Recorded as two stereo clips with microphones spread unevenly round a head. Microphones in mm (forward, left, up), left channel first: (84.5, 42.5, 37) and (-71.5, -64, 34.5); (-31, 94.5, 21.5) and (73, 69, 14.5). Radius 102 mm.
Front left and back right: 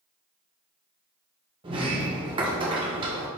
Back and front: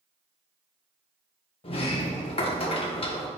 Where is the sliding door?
150° left, 1.1 m.